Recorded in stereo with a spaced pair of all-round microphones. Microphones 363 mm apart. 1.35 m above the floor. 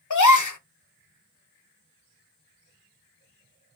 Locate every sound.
0.1 s a gasp: 60° left (ahead or behind), 0.7 m